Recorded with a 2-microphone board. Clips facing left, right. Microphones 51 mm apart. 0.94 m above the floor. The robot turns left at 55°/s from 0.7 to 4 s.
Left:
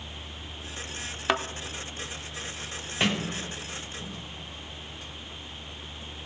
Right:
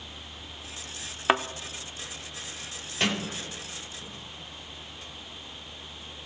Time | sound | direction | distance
1.3 | a thud | 15° right (ahead or behind) | 0.6 m
3.0 | a sliding door | 15° left (ahead or behind) | 1.9 m